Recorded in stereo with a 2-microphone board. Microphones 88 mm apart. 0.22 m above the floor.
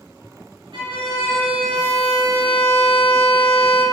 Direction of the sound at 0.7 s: 70° right (ahead or behind).